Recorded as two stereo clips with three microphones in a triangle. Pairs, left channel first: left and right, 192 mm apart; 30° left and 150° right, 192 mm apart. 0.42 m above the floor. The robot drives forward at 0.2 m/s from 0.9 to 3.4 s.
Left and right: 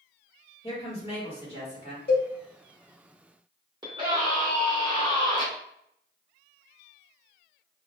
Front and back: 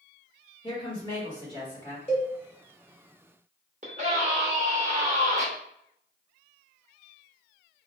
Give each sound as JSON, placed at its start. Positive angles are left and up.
{"t": 0.6, "sound": "a woman speaking", "azimuth_deg": 65, "distance_m": 1.4}
{"t": 2.1, "sound": "a cowbell", "azimuth_deg": 80, "distance_m": 1.7}
{"t": 3.8, "sound": "a scream", "azimuth_deg": -145, "distance_m": 0.9}